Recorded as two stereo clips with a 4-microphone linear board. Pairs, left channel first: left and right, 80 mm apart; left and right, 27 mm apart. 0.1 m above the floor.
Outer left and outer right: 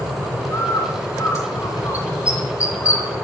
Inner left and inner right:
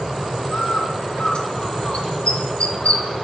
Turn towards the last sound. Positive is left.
turn(degrees=45)  # may be behind; listen again after turning